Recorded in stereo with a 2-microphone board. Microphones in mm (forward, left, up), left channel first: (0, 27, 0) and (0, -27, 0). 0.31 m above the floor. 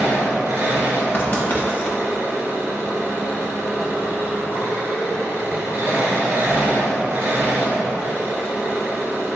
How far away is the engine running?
About 1.3 m.